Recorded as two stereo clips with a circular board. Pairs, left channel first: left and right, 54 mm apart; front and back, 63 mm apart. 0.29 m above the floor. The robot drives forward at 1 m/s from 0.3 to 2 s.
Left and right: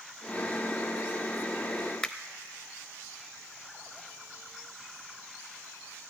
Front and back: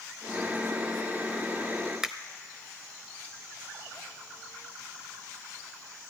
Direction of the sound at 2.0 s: 115° left.